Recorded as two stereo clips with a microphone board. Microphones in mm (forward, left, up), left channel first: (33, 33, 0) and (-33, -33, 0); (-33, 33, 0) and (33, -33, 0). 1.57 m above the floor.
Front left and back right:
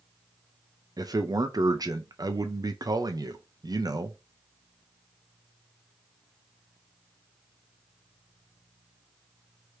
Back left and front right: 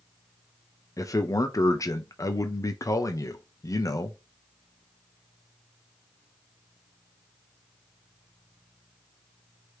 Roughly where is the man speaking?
Behind.